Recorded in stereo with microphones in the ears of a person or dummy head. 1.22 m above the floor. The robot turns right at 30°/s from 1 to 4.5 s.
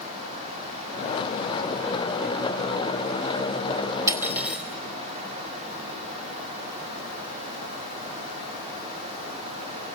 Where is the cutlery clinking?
20° right (ahead or behind), 2.5 m; by 4.6 s 5° right (ahead or behind), 2.5 m.